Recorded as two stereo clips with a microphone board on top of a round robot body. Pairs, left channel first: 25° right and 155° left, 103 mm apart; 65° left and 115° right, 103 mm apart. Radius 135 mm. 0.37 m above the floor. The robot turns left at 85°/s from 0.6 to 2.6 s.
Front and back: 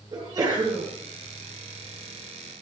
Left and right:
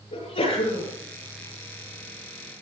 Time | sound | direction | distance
0.1 | a sneeze | 100° left | 7 m